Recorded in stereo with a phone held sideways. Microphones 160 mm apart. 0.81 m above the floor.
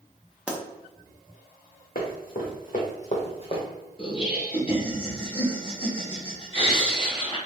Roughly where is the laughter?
Left.